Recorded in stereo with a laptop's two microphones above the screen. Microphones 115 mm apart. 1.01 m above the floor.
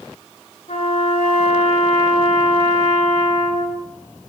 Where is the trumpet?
85° left, 4 m.